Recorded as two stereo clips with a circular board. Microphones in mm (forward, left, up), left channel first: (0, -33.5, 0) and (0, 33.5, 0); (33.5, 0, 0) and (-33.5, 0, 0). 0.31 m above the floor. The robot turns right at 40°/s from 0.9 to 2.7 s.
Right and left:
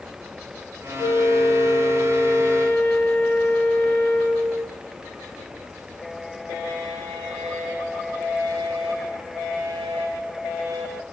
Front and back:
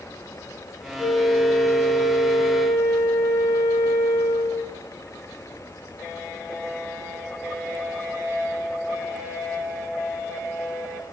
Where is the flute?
90° right, 0.9 m; by 4.8 s 20° right, 0.9 m.